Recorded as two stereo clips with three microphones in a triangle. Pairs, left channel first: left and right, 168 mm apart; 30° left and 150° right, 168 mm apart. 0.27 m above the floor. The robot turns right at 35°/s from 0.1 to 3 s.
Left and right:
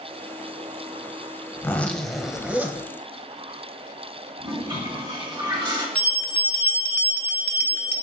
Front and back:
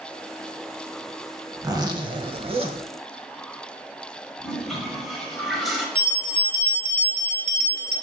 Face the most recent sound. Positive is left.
turn(degrees=175)